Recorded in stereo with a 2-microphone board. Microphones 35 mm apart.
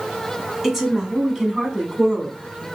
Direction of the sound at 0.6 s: 10° right (ahead or behind).